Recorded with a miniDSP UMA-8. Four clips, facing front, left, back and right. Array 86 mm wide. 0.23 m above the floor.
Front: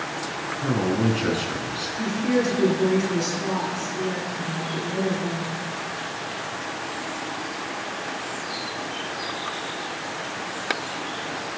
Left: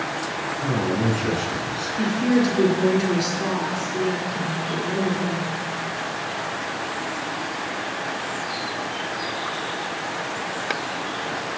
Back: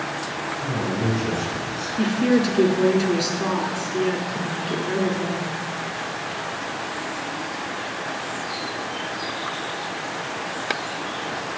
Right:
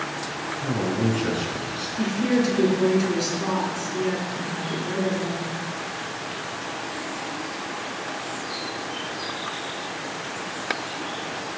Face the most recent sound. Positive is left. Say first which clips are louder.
# left 2 dB, back 4 dB
turn(degrees=175)